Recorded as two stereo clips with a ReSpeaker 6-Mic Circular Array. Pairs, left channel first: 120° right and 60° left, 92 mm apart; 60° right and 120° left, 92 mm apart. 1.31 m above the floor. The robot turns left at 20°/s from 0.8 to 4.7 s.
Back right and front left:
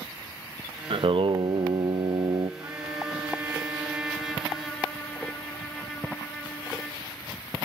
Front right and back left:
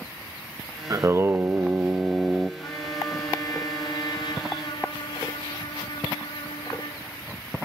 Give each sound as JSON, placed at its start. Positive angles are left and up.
{"t": 0.9, "sound": "singing", "azimuth_deg": 70, "distance_m": 0.5}
{"t": 2.6, "sound": "a trumpet", "azimuth_deg": 5, "distance_m": 4.0}